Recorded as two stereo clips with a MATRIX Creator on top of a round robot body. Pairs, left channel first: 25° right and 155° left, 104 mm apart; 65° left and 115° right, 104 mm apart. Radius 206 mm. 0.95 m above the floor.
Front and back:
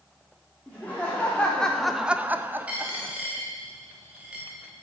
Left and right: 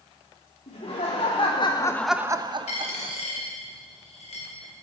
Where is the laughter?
55° left, 1.7 m; by 3.1 s 130° right, 1.4 m.